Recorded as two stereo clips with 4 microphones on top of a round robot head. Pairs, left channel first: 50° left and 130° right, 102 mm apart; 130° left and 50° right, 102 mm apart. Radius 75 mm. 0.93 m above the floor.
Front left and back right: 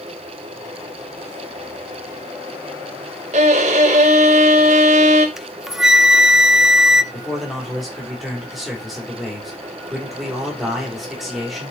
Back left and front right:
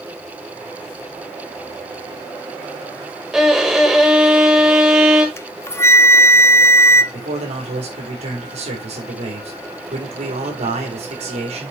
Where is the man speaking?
40° right, 3 m.